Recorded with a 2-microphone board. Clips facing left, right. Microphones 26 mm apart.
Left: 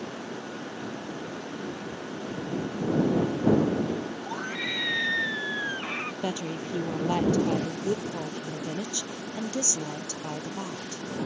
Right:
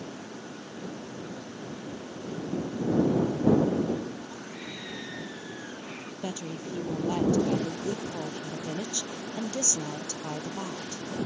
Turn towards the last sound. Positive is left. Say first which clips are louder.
# left 4 dB
turn(degrees=25)  # may be behind; listen again after turning